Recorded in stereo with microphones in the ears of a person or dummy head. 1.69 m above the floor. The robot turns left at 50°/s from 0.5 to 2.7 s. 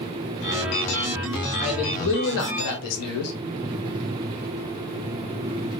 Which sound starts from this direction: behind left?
A man speaking, at 1.6 s.